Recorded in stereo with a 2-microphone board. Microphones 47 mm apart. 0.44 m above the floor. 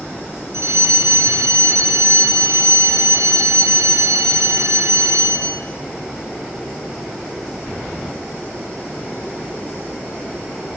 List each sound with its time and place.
0.5 s a fire alarm: 70° right (ahead or behind), 6.5 m